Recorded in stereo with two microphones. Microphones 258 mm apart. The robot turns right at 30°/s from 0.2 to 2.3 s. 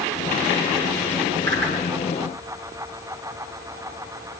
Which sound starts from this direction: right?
A whoosh, at 1.5 s.